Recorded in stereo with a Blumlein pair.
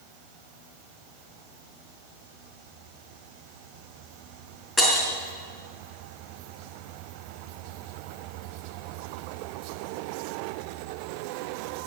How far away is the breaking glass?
About 4.5 m.